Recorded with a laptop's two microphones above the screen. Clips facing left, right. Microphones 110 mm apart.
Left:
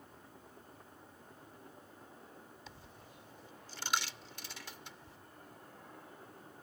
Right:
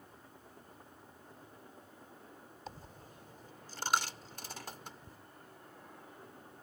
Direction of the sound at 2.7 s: 40° right (ahead or behind).